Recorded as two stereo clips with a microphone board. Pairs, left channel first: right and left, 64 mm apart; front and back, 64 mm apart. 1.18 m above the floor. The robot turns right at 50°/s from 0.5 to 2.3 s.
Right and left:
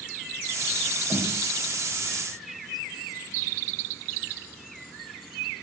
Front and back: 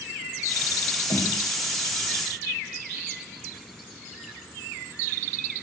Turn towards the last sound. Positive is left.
turn(degrees=85)